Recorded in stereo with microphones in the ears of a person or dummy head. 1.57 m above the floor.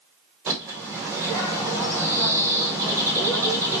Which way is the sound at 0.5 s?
15° right (ahead or behind).